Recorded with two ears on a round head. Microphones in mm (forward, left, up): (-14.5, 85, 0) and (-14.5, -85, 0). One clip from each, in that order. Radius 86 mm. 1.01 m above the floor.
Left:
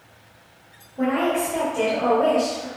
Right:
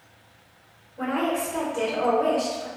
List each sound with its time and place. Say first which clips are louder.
1.0 s a woman speaking: left 4 dB; centre (ahead or behind), 1.4 m